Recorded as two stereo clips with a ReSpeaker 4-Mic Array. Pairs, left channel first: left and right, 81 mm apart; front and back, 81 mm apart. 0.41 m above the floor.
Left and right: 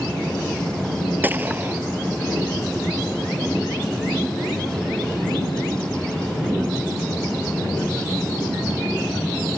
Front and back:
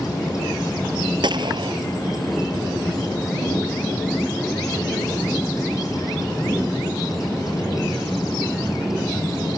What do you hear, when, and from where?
1.2 s a gunshot: 155° right